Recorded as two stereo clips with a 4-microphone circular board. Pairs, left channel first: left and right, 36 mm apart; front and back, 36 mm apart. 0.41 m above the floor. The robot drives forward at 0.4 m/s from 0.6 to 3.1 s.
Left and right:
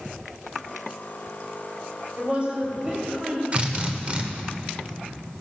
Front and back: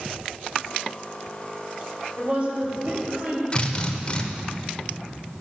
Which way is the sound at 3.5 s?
45° right.